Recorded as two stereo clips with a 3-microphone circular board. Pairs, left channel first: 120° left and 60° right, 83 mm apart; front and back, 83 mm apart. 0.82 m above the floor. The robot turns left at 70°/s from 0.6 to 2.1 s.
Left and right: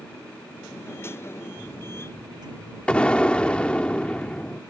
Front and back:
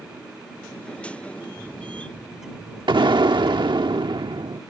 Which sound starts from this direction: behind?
An explosion, at 2.9 s.